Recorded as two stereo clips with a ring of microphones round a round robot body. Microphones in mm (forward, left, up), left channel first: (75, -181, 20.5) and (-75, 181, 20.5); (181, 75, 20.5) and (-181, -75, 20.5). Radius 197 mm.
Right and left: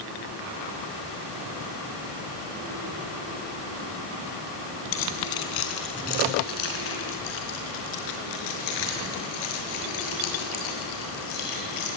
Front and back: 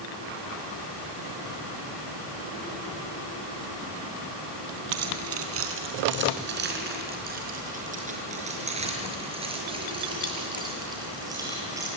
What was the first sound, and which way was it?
Keys jangling, 105° right.